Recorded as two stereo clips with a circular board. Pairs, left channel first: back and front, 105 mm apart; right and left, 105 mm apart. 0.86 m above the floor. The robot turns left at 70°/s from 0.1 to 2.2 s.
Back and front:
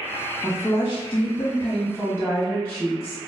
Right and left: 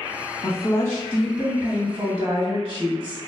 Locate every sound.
0.4 s a woman speaking: 120° right, 1.3 m; by 3.2 s 115° left, 1.3 m